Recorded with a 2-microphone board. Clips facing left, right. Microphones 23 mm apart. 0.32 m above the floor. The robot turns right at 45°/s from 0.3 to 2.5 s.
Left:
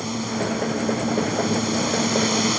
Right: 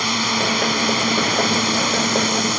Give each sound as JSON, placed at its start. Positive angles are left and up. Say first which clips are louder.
{"t": 0.0, "sound": "a drone", "louder": "right 7 dB", "azimuth_deg": -110}